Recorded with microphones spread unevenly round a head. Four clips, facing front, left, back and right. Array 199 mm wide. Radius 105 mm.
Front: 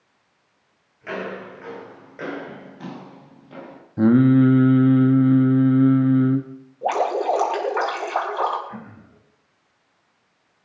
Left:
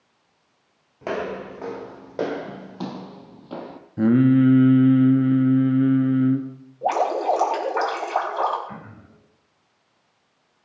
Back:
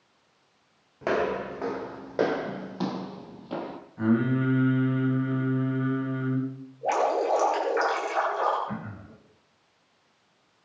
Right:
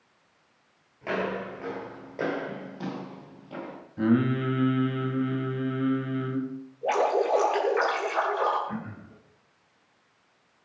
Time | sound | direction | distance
1.0 | footsteps | 140° left | 3.5 m
4.0 | singing | 30° left | 1.3 m
6.8 | dripping | 55° left | 4.5 m
8.7 | throat clearing | straight behind | 4.5 m